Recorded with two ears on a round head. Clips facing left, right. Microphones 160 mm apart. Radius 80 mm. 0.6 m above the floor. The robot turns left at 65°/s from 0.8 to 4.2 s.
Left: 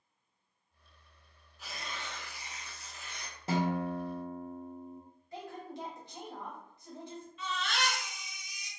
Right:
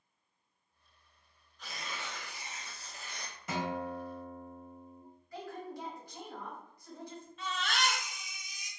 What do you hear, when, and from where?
1.6 s tearing paper: 15° left, 0.6 m; by 3.4 s 100° right, 0.6 m
3.5 s a guitar: 145° left, 0.5 m; by 5.0 s 100° left, 0.5 m
5.3 s a woman speaking: 20° left (ahead or behind), 1.1 m
7.4 s a baby crying: 40° right (ahead or behind), 1.4 m